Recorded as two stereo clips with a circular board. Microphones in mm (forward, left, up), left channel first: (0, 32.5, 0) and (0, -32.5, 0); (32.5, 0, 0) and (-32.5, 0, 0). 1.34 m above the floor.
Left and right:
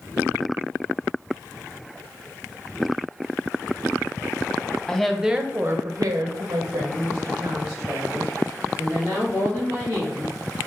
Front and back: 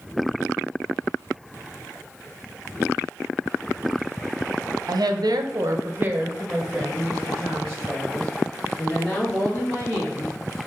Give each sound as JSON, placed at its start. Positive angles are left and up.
{"t": 4.9, "sound": "a woman speaking", "azimuth_deg": 170, "distance_m": 0.7}